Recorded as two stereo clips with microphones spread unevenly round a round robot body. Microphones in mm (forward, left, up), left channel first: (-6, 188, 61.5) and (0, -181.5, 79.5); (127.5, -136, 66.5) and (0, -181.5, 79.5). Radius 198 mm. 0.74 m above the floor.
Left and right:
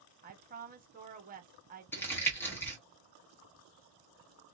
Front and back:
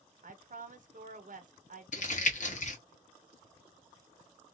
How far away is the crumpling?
About 1.2 m.